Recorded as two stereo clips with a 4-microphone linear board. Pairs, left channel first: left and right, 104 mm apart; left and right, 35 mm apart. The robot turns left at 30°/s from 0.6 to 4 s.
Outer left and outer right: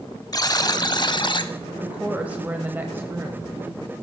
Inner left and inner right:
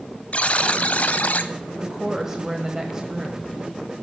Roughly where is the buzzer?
Left.